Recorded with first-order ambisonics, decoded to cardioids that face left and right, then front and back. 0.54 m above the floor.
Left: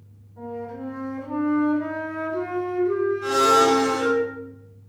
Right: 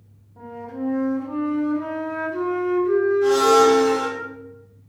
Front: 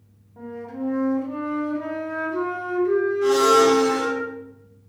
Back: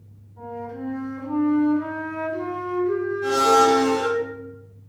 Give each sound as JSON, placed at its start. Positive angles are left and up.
{"t": 0.4, "sound": "a flute", "azimuth_deg": -30, "distance_m": 1.1}
{"t": 3.2, "sound": "a blender", "azimuth_deg": -25, "distance_m": 1.9}